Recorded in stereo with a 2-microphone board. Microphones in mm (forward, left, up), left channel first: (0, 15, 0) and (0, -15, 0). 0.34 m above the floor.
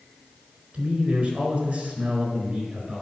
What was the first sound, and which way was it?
A man speaking, 55° right (ahead or behind).